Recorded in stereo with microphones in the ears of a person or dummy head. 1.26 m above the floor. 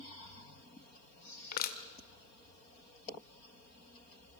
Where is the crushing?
55° left (ahead or behind), 1.5 m.